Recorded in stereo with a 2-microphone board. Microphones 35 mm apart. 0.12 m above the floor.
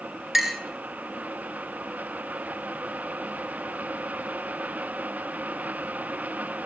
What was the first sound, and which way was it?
A clink, 5° right (ahead or behind).